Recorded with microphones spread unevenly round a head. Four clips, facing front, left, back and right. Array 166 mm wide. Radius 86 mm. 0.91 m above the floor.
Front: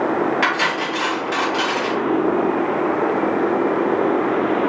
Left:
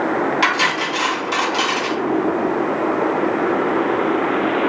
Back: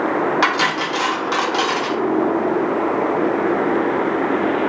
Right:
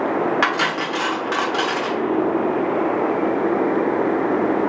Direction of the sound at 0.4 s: 160° right.